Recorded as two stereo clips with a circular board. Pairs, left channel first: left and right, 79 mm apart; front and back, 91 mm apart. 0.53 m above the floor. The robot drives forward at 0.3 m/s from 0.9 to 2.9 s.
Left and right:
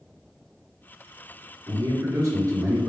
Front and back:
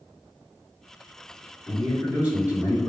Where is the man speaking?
100° right, 1.2 m; by 2.9 s 120° right, 1.3 m.